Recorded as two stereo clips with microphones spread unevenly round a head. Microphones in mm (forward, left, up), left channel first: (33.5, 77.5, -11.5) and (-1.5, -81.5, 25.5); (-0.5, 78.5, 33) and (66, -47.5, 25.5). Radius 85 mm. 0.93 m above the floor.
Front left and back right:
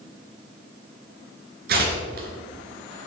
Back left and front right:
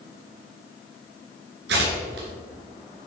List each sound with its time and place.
1.7 s tearing paper: 80° right, 3.5 m